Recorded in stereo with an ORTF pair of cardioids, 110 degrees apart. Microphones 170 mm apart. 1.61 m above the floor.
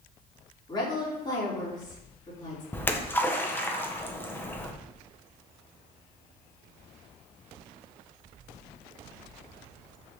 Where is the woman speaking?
25° left, 4.5 m.